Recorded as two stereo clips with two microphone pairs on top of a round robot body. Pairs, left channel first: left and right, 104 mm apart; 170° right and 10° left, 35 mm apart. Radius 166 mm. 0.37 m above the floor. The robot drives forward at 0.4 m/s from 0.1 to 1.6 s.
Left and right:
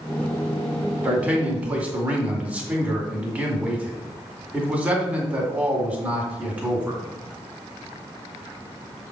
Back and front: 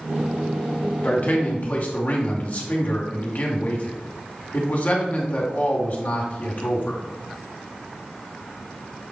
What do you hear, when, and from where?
1.0 s a man speaking: 160° right, 2 m; by 7.0 s 165° right, 2.5 m